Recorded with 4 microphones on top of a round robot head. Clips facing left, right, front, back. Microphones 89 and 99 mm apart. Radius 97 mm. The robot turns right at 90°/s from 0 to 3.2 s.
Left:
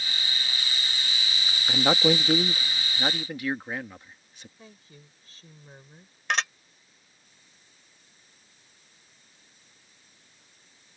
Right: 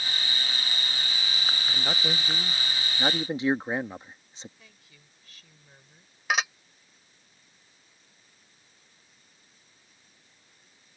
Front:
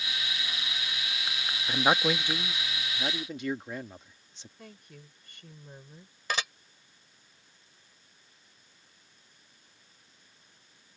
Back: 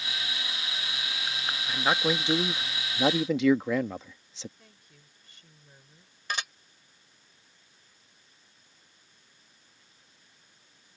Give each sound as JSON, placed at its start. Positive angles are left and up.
{"t": 1.7, "sound": "a man speaking", "azimuth_deg": 60}
{"t": 4.6, "sound": "a woman speaking", "azimuth_deg": 30}
{"t": 6.3, "sound": "dishes clattering", "azimuth_deg": -5}